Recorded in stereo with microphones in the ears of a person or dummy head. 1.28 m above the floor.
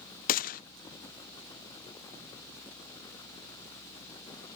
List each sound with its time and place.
0.3 s a gunshot: 45° left (ahead or behind), 0.5 m